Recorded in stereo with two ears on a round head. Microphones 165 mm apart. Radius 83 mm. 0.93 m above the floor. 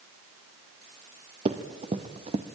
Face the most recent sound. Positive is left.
turn(degrees=-30)  # may be behind; listen again after turning